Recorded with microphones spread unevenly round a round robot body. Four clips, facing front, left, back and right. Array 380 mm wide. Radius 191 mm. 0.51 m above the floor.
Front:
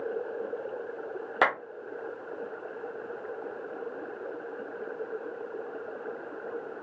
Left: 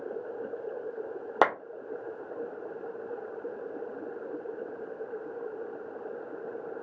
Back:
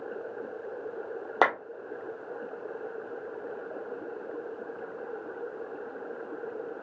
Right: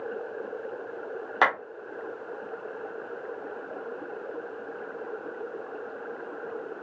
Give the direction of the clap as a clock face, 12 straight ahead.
8 o'clock.